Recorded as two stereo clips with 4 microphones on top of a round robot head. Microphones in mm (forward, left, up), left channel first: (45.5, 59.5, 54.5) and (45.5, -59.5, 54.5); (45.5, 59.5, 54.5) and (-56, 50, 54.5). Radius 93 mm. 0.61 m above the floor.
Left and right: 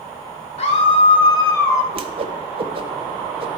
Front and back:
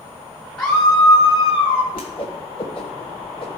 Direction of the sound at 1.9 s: 50° right.